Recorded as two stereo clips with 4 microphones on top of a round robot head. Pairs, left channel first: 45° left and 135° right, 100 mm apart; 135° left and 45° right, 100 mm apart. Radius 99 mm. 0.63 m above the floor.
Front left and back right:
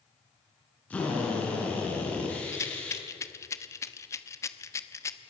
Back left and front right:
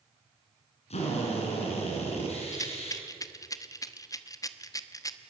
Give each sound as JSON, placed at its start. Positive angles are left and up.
{"t": 0.9, "sound": "a drill", "azimuth_deg": 120, "distance_m": 5.5}
{"t": 2.5, "sound": "a rattle", "azimuth_deg": 95, "distance_m": 1.2}